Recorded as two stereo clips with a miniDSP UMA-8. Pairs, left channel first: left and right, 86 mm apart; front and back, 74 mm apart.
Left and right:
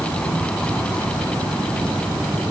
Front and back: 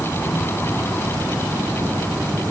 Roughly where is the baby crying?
I don't hear a baby crying.